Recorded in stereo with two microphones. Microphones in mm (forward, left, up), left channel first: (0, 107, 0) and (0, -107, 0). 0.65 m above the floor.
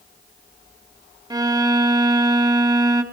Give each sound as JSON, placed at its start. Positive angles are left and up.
{"t": 1.3, "sound": "a violin", "side_deg": -20, "distance_m": 1.4}